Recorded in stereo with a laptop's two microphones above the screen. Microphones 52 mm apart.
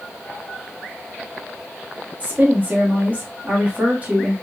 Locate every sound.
2.2 s a woman speaking: 30° right (ahead or behind), 1.7 m